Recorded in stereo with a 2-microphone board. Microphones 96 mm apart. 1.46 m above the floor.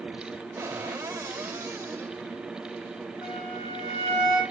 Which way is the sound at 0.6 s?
25° right (ahead or behind).